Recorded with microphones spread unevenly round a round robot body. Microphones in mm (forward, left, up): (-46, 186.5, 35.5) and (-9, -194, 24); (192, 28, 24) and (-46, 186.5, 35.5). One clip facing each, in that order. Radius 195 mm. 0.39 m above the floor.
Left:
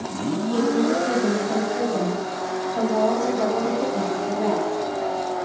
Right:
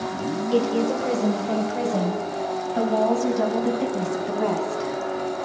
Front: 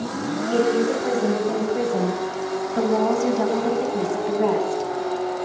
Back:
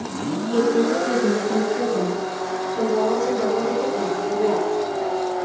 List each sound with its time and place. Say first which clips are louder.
0.5 s a woman speaking: left 1 dB, back 1 dB; 65° right, 3 m; by 4.9 s 30° right, 4 m